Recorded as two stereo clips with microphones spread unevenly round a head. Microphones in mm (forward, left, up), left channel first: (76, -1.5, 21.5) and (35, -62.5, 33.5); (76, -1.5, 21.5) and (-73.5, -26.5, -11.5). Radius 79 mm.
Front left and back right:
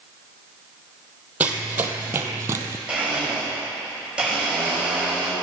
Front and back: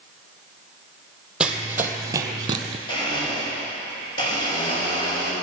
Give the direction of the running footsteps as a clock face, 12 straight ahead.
2 o'clock.